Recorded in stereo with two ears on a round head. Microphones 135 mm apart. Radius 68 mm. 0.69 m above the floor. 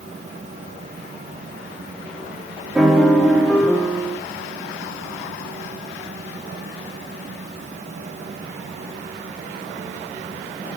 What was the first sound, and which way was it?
A piano, 5° right (ahead or behind).